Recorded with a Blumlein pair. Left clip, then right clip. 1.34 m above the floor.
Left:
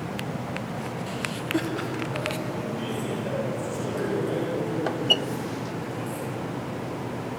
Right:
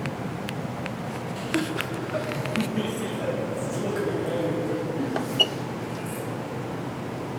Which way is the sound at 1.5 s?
Straight ahead.